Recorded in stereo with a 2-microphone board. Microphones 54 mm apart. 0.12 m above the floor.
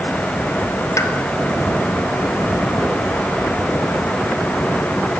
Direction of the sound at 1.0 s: 65° left (ahead or behind).